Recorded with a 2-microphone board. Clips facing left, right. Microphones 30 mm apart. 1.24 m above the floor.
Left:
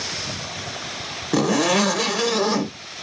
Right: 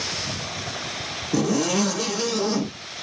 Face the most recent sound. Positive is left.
turn(degrees=85)